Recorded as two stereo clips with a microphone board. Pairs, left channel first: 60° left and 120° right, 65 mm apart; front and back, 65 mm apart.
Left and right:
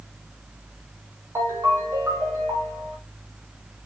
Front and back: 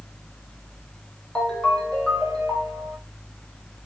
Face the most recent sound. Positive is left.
turn(degrees=-80)